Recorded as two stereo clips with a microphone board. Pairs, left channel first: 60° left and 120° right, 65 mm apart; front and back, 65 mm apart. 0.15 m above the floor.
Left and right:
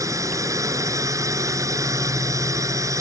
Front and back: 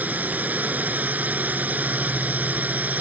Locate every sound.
0.0 s a drone: 120° right